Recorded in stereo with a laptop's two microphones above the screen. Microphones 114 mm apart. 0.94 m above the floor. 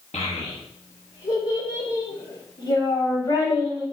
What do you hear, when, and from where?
0.1 s a child speaking: 75° left (ahead or behind), 0.9 m; by 3.8 s 45° left (ahead or behind), 2.5 m